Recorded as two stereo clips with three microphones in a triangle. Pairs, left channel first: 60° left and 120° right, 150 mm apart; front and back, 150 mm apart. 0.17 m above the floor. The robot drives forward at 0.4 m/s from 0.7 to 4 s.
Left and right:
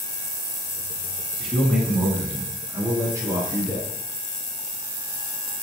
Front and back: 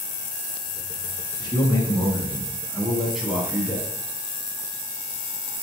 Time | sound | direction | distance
1.4 | a man speaking | 30° right | 1.4 m